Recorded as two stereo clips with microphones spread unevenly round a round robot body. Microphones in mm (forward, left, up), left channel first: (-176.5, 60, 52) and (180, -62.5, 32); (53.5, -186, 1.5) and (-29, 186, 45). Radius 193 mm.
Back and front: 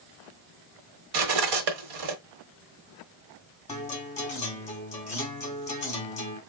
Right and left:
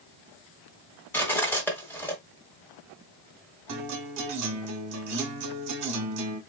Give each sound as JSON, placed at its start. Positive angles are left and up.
{"t": 1.1, "sound": "cutlery clinking", "azimuth_deg": 5, "distance_m": 1.3}
{"t": 3.7, "sound": "a guitar", "azimuth_deg": 95, "distance_m": 1.3}